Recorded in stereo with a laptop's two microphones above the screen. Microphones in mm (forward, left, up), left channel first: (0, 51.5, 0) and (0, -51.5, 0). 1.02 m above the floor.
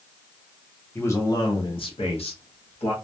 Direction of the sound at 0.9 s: 20° left (ahead or behind).